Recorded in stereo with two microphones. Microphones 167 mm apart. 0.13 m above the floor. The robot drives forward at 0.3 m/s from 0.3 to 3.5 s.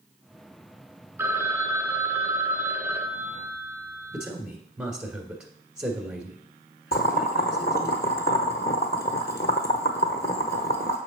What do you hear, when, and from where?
1.2 s a phone ringing: 15° right (ahead or behind), 0.7 m; by 4.3 s 10° right (ahead or behind), 0.9 m
4.1 s a man speaking: 5° right (ahead or behind), 1.3 m
6.9 s boiling: 75° left (ahead or behind), 0.9 m